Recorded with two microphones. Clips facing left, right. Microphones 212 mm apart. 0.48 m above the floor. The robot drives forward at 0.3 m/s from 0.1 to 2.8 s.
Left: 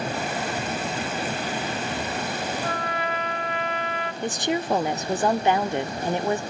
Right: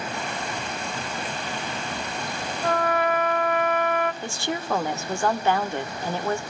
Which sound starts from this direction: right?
A trumpet, at 2.6 s.